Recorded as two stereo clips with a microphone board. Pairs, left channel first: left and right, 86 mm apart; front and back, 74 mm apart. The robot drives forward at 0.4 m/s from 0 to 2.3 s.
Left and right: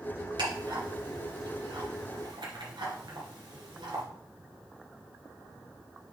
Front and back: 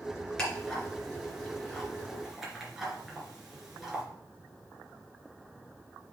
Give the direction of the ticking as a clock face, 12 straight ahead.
3 o'clock.